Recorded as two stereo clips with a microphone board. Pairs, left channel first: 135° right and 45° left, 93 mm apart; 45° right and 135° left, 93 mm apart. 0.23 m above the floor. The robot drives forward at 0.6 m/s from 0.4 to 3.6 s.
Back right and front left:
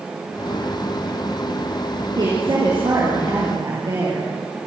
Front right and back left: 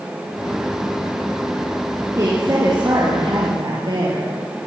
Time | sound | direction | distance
2.2 | a woman speaking | 85° left | 5.5 m